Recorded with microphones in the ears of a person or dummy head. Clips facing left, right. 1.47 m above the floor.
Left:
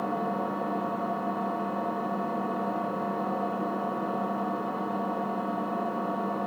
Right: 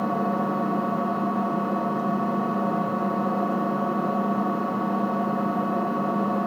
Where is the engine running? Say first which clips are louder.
Right 5 dB; 75° right (ahead or behind), 1.1 m.